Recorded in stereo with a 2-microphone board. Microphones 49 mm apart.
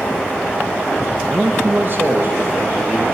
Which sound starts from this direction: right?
A man speaking, at 1.2 s.